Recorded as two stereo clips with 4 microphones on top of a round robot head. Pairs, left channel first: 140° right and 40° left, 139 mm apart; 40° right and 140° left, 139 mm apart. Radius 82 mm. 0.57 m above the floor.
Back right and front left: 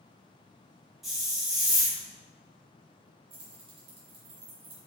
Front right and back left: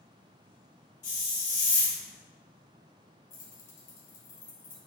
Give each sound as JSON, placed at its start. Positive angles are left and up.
{"t": 1.0, "sound": "a hiss", "azimuth_deg": -45, "distance_m": 2.0}
{"t": 3.3, "sound": "keys jangling", "azimuth_deg": -10, "distance_m": 1.6}